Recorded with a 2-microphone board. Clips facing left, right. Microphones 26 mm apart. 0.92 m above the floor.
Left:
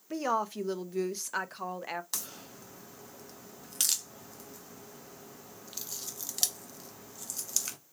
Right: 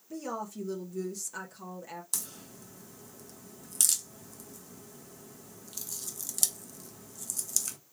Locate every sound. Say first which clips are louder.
0.1 s a woman speaking: left 7 dB; 50° left (ahead or behind), 0.5 m
2.1 s a crack: even; 20° left (ahead or behind), 0.6 m